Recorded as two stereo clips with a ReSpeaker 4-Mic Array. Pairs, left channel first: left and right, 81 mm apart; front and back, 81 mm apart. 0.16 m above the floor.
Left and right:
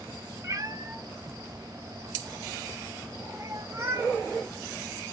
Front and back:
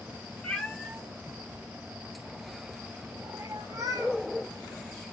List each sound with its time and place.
0.4 s a cat meowing: 70° right, 1.0 m; by 4.1 s 140° right, 2 m